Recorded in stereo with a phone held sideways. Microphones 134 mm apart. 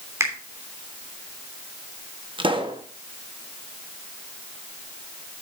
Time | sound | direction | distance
0.2 | a finger snap | 20° right (ahead or behind) | 3 m
2.4 | a pop | 40° right (ahead or behind) | 1.1 m